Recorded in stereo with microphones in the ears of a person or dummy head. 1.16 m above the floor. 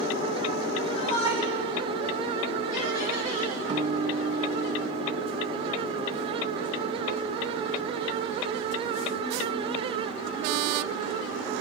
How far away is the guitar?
About 3 m.